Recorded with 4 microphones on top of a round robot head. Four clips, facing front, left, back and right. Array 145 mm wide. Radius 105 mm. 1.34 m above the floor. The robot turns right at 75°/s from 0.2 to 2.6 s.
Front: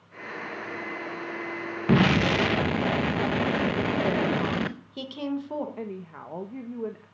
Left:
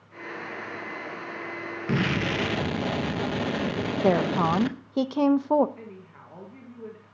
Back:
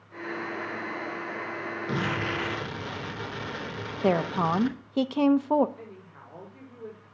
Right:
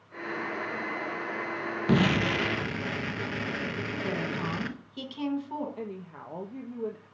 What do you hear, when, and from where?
1.9 s an explosion: 30° right, 0.8 m; by 4.8 s 25° left, 0.8 m
4.0 s a woman speaking: 125° left, 1.0 m
5.8 s a woman speaking: 30° right, 1.4 m